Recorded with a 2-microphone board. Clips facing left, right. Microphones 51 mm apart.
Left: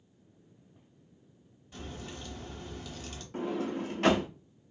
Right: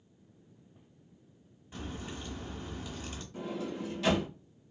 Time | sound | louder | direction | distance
1.7 | a crack | right 2 dB | 20° right (ahead or behind) | 1.1 m
3.3 | a sliding door | left 5 dB | 50° left (ahead or behind) | 0.7 m